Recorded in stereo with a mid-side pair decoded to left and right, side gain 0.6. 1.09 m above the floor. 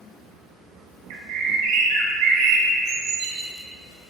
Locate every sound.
1.1 s a bird: 70° right, 1.2 m